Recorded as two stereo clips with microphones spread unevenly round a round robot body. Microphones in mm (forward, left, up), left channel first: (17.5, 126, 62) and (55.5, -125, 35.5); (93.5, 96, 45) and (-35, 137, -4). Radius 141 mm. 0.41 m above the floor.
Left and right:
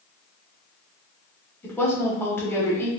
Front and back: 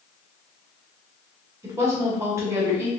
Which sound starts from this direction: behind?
A woman speaking, at 1.6 s.